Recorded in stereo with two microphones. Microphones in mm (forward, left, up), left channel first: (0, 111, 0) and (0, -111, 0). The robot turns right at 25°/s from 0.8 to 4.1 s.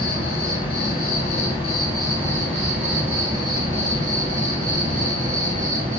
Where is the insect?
130° left, 0.9 m; by 6.0 s 145° right, 0.9 m.